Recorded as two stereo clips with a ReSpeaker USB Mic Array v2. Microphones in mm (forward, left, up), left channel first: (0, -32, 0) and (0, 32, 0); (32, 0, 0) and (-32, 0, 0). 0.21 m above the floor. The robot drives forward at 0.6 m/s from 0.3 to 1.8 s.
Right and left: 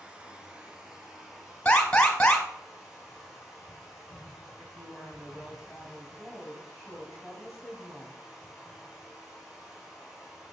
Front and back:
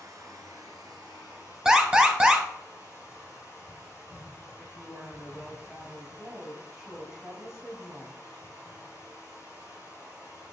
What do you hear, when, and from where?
0.0 s running water: 160° left, 0.8 m; by 10.5 s 170° left, 1.7 m
1.6 s an alarm: 135° right, 0.8 m; by 2.5 s 145° right, 0.8 m
4.6 s a woman speaking: 175° right, 1.1 m